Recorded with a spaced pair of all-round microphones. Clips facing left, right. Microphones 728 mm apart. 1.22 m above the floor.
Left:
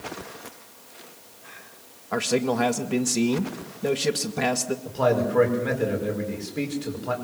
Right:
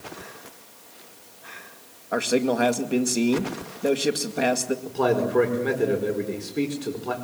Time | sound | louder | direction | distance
2.1 | a man speaking | right 1 dB | 30° left (ahead or behind) | 1.9 m
4.8 | a man speaking | even | 15° left (ahead or behind) | 5 m